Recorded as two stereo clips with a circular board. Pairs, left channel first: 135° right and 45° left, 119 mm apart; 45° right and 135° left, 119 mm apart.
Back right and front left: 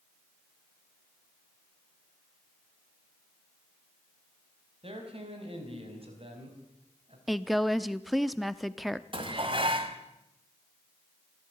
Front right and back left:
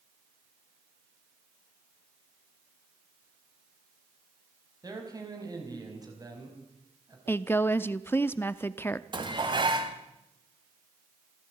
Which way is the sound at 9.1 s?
85° left.